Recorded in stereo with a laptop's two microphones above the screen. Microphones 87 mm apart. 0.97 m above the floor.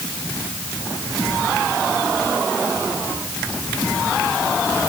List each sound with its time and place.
Only background noise.